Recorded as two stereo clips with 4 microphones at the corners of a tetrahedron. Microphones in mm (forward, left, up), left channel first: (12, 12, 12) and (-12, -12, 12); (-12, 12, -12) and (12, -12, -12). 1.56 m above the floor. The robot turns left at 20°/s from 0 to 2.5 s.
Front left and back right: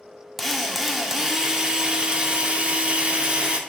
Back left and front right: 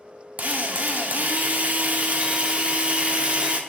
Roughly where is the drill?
Ahead right.